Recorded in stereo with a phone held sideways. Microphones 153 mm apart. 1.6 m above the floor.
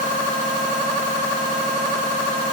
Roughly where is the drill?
I don't hear a drill.